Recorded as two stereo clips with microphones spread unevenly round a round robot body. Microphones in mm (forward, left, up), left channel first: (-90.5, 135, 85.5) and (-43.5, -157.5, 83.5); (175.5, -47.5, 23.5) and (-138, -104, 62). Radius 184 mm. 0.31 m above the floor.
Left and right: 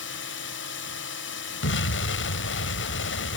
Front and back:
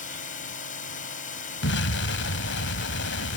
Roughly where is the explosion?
Ahead left.